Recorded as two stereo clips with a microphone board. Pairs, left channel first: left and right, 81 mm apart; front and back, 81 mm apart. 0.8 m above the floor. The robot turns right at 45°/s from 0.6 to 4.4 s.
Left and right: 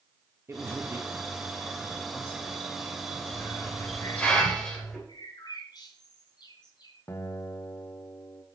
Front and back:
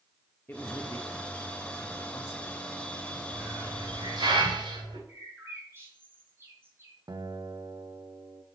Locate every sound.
0.5 s a man speaking: 55° right, 0.8 m; by 2.6 s 35° left, 0.8 m
3.3 s a hiss: 125° left, 3 m; by 5.0 s 170° left, 3 m
5.1 s a bird: 120° left, 3 m
7.1 s a guitar: 140° left, 0.7 m